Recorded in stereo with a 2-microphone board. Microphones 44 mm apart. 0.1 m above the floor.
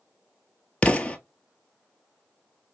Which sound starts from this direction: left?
An explosion, at 0.8 s.